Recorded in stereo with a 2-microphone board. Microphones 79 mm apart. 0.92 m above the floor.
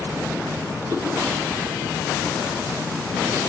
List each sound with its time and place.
0.9 s a whoosh: 55° right (ahead or behind), 4 m